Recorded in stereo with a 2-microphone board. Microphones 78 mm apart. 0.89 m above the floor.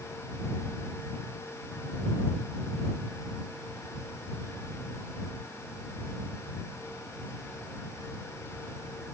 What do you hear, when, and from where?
Only background noise.